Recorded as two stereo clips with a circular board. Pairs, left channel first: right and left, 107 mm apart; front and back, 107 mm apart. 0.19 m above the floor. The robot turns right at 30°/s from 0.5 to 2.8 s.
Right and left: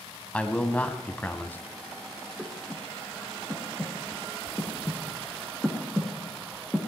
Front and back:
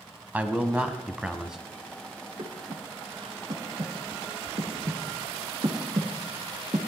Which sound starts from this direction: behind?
Breathing, at 2.4 s.